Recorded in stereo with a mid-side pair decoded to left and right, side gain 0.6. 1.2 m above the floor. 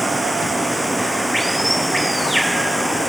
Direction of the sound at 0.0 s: Straight ahead.